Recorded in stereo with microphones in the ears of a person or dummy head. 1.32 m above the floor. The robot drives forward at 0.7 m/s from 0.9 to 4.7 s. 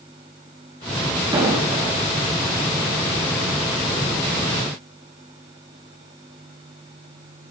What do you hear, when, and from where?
1.3 s an explosion: 20° right (ahead or behind), 3.5 m